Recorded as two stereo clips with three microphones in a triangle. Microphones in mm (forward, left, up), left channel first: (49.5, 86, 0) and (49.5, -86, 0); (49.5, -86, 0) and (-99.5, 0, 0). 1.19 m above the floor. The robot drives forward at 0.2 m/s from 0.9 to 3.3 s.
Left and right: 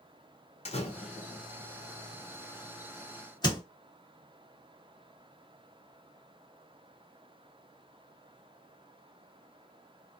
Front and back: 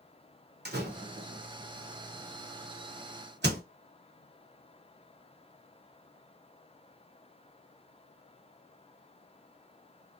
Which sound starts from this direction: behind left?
A door slam, at 0.7 s.